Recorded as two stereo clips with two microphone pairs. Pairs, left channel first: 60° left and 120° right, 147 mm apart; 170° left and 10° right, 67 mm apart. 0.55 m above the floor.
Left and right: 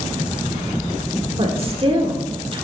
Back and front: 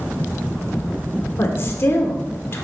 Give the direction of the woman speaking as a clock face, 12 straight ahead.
5 o'clock.